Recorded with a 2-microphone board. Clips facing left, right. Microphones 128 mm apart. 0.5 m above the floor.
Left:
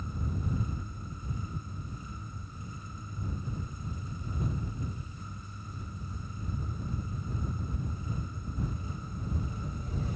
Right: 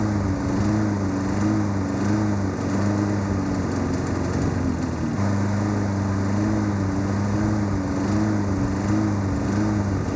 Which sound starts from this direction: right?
A lawn mower, at 0.0 s.